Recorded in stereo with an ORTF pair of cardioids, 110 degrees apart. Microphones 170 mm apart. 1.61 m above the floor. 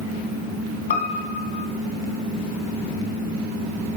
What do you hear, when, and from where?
0.9 s a piano: 55° left, 1.3 m